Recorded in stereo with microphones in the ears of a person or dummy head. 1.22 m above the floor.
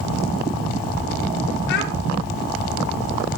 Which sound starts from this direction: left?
A child speaking, at 1.7 s.